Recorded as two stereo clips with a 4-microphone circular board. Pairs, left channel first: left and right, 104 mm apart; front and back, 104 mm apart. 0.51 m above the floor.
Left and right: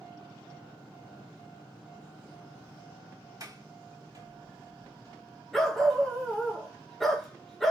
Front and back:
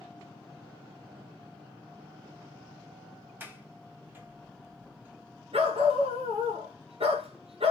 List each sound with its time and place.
3.4 s a sliding door: 120° right, 1.4 m
5.5 s a dog barking: 175° left, 2.0 m